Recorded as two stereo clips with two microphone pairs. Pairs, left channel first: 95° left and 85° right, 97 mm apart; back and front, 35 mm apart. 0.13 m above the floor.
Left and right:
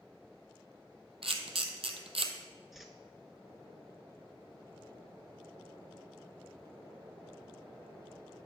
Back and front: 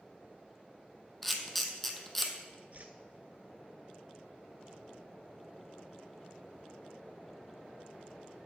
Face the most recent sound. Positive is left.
turn(degrees=5)